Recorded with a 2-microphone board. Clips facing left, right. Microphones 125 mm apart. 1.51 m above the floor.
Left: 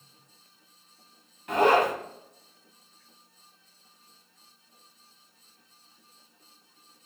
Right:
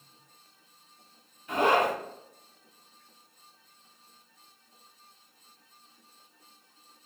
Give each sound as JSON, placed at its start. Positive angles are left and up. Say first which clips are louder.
{"t": 1.5, "sound": "a zipper", "louder": "left 3 dB", "side_deg": 80, "distance_m": 1.3}